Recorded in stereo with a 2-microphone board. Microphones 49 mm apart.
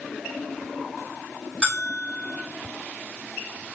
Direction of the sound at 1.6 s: 15° right (ahead or behind).